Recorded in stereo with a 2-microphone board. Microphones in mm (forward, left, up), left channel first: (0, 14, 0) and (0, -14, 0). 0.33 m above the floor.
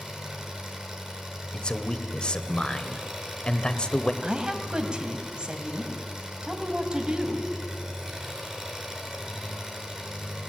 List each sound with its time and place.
0.0 s an engine running: 15° right (ahead or behind), 5 m
1.5 s a man speaking: 35° left (ahead or behind), 1.1 m
4.2 s a woman speaking: 30° right (ahead or behind), 2.5 m